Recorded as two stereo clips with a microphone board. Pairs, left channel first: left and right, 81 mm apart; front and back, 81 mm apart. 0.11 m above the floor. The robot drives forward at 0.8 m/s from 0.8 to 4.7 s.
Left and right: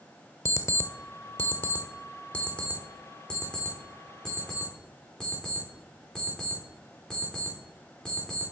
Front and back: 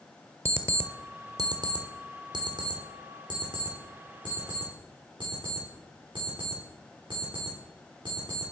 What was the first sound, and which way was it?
An alarm clock, 130° left.